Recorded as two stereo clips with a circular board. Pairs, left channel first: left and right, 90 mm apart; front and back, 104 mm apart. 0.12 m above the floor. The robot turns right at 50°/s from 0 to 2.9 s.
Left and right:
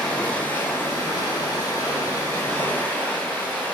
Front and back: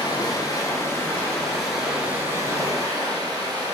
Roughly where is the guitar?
I don't hear a guitar.